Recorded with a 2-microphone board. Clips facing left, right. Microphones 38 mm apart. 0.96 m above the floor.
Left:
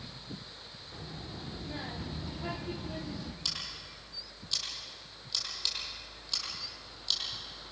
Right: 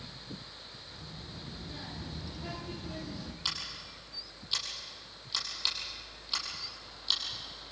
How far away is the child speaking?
About 2 m.